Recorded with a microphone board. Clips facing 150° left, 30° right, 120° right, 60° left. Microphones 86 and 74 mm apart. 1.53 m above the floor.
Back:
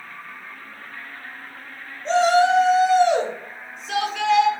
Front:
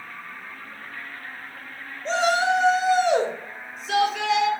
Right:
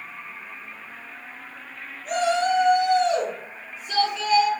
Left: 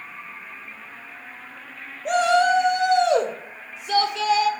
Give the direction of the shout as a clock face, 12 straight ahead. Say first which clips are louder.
Back 5 dB, left 4 dB; 10 o'clock.